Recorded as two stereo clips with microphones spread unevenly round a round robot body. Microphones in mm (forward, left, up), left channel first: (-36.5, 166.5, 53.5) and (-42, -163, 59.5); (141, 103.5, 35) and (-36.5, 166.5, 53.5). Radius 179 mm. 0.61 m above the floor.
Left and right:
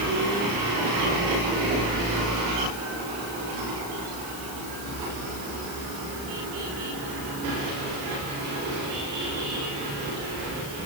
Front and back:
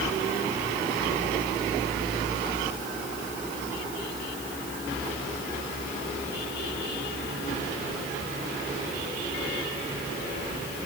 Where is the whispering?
No whispering in this recording.